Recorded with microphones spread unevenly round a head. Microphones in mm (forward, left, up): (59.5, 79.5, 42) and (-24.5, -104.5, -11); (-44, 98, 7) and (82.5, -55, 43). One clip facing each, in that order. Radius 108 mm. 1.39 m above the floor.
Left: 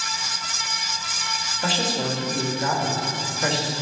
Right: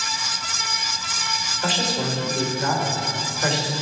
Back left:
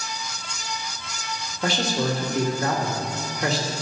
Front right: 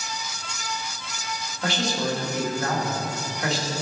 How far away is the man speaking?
About 2 m.